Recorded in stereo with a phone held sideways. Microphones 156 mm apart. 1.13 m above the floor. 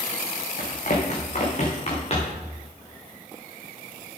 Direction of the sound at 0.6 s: 55° left (ahead or behind).